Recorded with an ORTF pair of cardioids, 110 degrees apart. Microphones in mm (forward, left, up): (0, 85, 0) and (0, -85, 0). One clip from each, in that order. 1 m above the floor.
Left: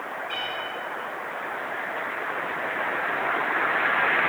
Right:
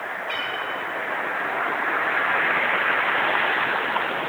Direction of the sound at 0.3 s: 35° right.